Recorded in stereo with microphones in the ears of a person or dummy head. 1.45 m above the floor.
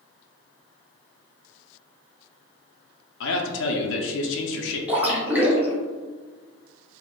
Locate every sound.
3.2 s a man speaking: 70° left (ahead or behind), 0.5 m
4.9 s a splash: 10° right (ahead or behind), 0.8 m